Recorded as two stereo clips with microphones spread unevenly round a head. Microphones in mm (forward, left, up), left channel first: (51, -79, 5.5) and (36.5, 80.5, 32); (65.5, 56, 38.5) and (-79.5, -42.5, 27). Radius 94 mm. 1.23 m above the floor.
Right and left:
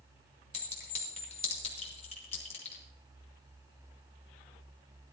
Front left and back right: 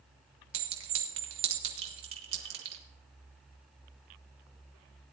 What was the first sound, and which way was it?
A clink, 145° right.